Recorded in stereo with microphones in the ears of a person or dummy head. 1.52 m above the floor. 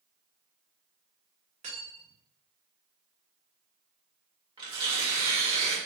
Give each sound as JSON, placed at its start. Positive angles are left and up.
{"t": 1.6, "sound": "cutlery clinking", "side_deg": -35, "distance_m": 1.7}
{"t": 4.6, "sound": "tearing paper", "side_deg": -25, "distance_m": 2.0}